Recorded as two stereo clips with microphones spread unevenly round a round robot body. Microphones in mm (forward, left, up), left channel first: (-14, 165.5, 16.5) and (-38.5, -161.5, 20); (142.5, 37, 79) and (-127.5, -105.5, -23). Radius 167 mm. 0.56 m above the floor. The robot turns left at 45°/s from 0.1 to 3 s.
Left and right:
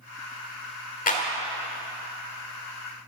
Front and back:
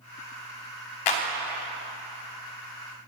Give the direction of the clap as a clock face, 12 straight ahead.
11 o'clock.